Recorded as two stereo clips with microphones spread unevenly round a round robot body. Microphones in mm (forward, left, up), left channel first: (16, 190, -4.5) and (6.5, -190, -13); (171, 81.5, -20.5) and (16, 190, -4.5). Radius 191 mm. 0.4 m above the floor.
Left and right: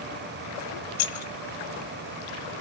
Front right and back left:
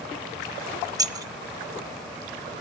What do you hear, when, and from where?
1.0 s keys jangling: 75° left, 0.8 m